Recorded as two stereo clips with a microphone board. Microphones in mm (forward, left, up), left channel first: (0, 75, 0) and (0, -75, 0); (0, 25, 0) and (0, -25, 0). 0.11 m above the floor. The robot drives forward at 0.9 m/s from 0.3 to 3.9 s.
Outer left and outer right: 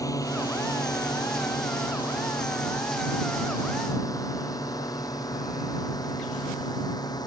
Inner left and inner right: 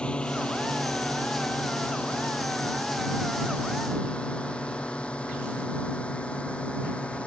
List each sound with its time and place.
0.0 s a drone: 20° left (ahead or behind); by 7.3 s 25° left (ahead or behind)